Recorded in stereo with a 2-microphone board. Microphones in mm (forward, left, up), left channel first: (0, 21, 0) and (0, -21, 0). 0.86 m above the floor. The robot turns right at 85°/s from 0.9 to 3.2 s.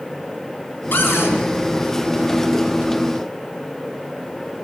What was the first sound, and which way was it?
A cupboard door, 60° left.